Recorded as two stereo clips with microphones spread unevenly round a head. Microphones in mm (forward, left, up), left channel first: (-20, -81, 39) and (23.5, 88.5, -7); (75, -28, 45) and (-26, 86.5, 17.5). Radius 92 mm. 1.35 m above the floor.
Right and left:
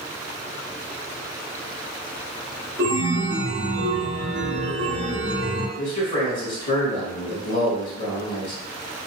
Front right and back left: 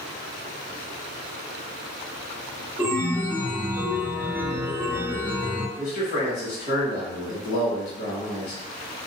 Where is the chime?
55° left, 0.6 m.